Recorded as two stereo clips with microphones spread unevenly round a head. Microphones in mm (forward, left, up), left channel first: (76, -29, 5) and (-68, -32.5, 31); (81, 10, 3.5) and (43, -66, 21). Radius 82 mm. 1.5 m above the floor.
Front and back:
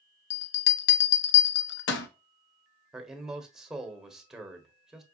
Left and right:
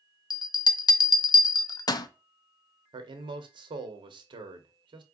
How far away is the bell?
About 0.5 m.